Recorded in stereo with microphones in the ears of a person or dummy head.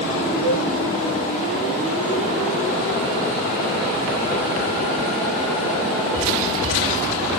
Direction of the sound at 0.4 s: 65° right (ahead or behind).